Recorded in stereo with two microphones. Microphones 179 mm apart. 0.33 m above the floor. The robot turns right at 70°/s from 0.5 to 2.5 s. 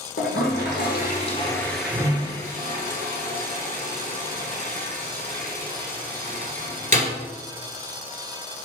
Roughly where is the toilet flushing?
Left.